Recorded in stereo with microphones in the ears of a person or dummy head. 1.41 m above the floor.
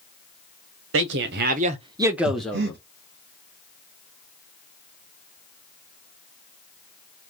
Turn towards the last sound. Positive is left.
turn(degrees=-55)  # may be behind; listen again after turning